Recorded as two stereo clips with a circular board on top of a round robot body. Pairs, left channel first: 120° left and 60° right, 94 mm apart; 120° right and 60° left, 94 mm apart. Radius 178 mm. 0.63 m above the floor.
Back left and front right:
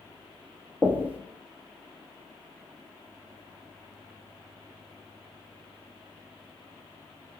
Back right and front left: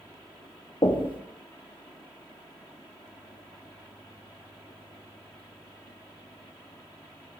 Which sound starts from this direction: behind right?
Knocking, at 0.8 s.